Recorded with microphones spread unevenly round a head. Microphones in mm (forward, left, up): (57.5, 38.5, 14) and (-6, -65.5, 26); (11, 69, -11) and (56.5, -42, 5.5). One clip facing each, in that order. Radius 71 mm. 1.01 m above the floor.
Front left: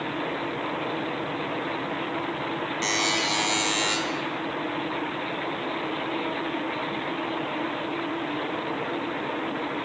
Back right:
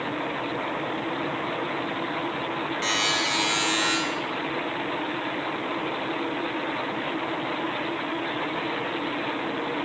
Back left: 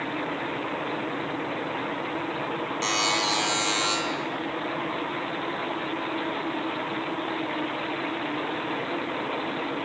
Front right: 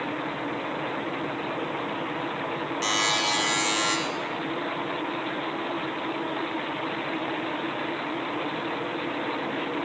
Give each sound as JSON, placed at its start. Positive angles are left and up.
{"t": 2.8, "sound": "a buzzer", "azimuth_deg": 10, "distance_m": 2.5}